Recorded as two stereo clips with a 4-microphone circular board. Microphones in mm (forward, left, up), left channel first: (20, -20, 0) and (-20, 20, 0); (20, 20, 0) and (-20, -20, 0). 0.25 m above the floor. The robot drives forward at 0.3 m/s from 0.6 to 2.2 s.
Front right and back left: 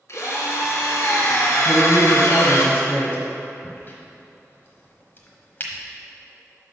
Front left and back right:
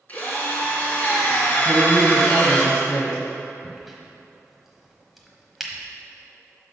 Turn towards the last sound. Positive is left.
turn(degrees=-50)